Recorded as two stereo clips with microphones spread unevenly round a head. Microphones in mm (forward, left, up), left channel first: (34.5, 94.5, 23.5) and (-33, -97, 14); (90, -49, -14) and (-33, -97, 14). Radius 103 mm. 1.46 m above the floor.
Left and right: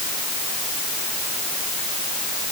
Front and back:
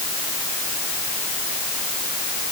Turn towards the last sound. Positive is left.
No sound to turn to.